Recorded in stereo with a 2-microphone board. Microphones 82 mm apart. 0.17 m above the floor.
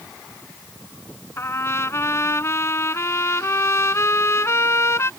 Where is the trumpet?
35° left (ahead or behind).